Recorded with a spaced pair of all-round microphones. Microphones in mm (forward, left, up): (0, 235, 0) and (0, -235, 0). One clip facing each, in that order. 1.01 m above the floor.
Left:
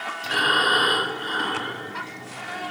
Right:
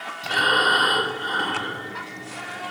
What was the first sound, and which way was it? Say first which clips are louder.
Breathing: right 1 dB; 55° right (ahead or behind).